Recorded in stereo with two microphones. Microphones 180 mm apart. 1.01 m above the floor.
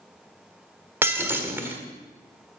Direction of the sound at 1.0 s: 15° right (ahead or behind).